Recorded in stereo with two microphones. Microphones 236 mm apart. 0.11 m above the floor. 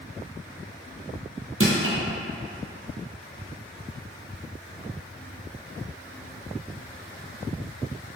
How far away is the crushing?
About 1.2 m.